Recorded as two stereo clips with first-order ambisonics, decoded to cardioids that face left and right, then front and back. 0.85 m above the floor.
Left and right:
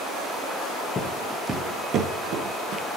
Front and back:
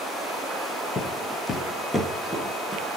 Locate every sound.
0.9 s footsteps: 40° left, 1.0 m; by 2.8 s 90° right, 1.7 m